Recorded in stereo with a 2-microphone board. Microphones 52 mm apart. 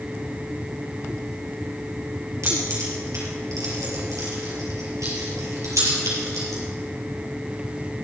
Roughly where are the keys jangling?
Right.